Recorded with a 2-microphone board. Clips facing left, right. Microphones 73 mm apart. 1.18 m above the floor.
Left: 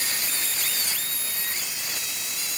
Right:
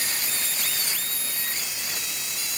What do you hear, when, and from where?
Only background noise.